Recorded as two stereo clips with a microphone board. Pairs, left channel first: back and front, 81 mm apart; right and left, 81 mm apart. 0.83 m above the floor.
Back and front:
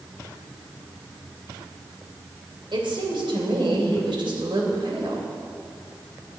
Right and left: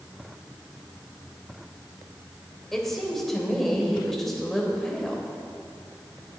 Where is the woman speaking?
5° right, 3 m.